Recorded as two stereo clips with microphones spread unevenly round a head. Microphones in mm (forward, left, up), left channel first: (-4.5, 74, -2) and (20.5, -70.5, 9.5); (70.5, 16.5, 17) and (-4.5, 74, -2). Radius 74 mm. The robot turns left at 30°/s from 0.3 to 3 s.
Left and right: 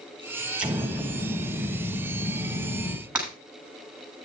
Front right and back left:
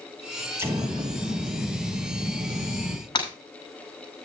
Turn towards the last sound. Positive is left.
turn(degrees=0)